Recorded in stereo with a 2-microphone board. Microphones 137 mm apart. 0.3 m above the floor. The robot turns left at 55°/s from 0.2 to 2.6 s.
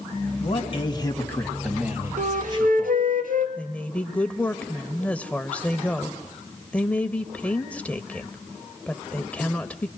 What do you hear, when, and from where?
0.4 s a man speaking: 70° left, 2.5 m; by 3.0 s 55° right, 2.5 m
2.2 s a flute: 65° right (ahead or behind), 1.8 m; by 3.5 s 85° right, 1.8 m
3.6 s a woman speaking: 10° left (ahead or behind), 0.9 m